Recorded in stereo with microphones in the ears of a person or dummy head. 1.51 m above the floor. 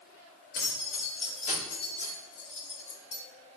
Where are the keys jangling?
60° left (ahead or behind), 4.5 m; by 3.2 s 70° left (ahead or behind), 3.5 m.